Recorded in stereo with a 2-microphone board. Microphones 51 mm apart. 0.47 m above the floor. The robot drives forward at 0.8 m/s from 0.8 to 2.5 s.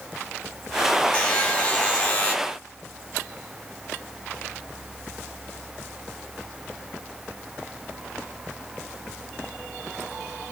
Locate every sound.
1.1 s a buzzer: 20° left (ahead or behind), 1.6 m; by 2.4 s 25° left (ahead or behind), 1.3 m